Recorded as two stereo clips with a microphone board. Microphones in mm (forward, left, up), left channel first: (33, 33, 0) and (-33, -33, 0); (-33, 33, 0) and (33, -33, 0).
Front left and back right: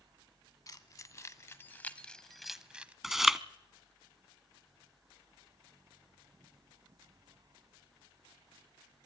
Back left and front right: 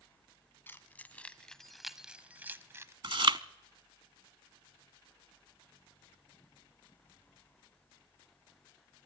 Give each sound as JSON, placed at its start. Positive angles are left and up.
{"t": 0.7, "sound": "keys jangling", "azimuth_deg": 75, "distance_m": 1.1}
{"t": 3.0, "sound": "chewing", "azimuth_deg": -50, "distance_m": 0.6}